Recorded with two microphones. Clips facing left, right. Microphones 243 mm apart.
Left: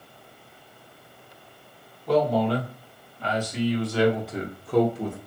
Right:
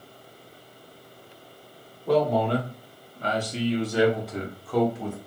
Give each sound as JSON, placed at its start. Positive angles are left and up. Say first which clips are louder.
{"t": 2.1, "sound": "a man speaking", "louder": "even", "side_deg": -60, "distance_m": 1.3}